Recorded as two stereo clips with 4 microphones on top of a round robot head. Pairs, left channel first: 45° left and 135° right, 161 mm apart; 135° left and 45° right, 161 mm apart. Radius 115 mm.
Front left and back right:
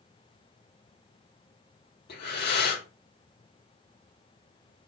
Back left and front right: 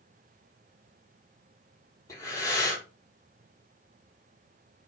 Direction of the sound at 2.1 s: 65° left.